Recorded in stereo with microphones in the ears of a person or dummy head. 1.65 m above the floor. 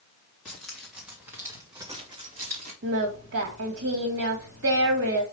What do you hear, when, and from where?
0.5 s keys jangling: 5° left (ahead or behind), 2.5 m; by 2.7 s 40° right (ahead or behind), 2 m
2.8 s singing: 60° right (ahead or behind), 1.8 m